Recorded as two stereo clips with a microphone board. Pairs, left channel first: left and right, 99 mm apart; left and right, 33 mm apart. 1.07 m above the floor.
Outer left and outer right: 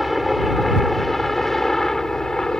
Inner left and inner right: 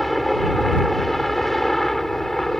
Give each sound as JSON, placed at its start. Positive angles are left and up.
{"t": 0.0, "sound": "a helicopter", "side_deg": 0}